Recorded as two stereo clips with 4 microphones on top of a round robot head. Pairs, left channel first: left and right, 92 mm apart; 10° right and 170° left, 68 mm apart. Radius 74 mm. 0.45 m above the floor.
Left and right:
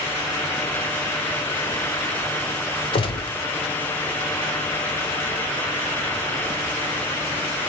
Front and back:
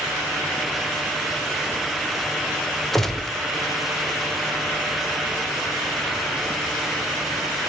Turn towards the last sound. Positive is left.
turn(degrees=75)